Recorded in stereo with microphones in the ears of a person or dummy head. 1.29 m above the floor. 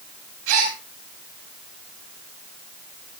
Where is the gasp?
80° right, 9 m.